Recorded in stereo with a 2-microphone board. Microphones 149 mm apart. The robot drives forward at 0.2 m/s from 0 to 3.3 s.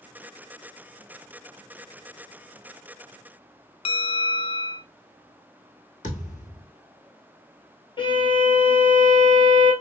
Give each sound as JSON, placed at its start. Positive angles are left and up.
{"t": 3.9, "sound": "a bell", "side_deg": 40, "distance_m": 0.5}
{"t": 6.0, "sound": "a thud", "side_deg": 65, "distance_m": 2.5}
{"t": 8.0, "sound": "a violin", "side_deg": 35, "distance_m": 1.7}